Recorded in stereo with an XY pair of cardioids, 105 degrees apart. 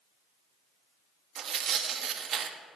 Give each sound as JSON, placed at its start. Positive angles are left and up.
{"t": 1.4, "sound": "tearing paper", "azimuth_deg": -60, "distance_m": 1.0}